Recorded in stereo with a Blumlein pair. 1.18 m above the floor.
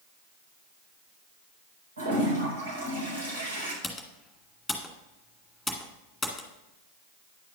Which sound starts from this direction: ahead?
Typing on a keyboard, at 3.8 s.